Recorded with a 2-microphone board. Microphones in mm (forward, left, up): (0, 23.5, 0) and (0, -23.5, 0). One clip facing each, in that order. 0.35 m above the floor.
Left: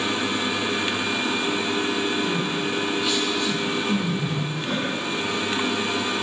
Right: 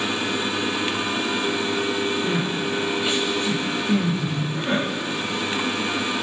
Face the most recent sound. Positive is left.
turn(degrees=20)  # may be behind; listen again after turning